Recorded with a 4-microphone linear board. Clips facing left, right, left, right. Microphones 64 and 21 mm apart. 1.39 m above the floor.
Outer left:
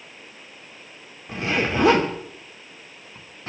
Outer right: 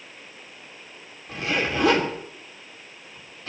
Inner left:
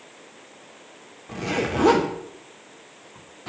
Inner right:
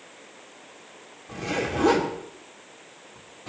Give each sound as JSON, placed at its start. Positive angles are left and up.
{"t": 1.3, "sound": "a zipper", "side_deg": 30, "distance_m": 2.5}